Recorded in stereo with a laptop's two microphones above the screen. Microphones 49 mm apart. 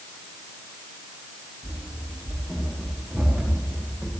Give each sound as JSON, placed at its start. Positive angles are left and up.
{"t": 1.6, "sound": "running footsteps", "side_deg": 10, "distance_m": 7.0}